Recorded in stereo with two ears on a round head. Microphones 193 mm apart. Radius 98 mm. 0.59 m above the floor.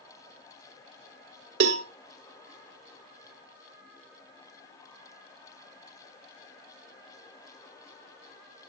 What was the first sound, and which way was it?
A cowbell, 65° right (ahead or behind).